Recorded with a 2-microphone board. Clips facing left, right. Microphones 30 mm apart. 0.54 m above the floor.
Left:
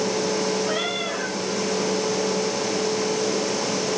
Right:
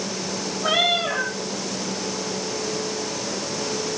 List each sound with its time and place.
0.6 s a cat meowing: 90° right, 8 m